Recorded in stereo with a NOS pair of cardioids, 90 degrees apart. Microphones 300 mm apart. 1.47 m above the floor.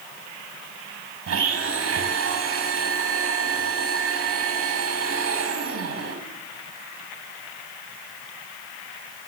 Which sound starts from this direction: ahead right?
A blender, at 1.3 s.